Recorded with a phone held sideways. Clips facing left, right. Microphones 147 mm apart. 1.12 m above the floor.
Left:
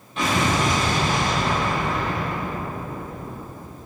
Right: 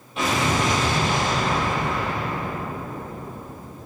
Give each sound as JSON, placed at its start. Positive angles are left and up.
{"t": 0.2, "sound": "an explosion", "side_deg": -5, "distance_m": 1.1}